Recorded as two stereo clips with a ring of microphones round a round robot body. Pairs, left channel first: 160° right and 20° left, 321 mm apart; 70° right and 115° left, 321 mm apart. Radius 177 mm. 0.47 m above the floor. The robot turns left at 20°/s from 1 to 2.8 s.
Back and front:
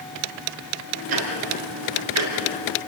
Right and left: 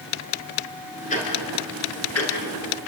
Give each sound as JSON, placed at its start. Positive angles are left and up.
{"t": 1.1, "sound": "ticking", "azimuth_deg": 0, "distance_m": 5.0}